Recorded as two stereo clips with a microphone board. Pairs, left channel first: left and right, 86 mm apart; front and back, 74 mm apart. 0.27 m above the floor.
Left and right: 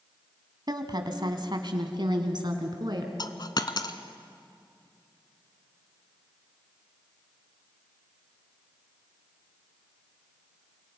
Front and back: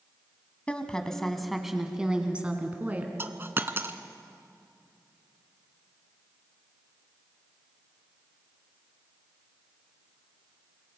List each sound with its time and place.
0.7 s a woman speaking: 70° right, 2 m; by 3.1 s 115° right, 3 m
3.2 s a dropped coin: 125° left, 1.0 m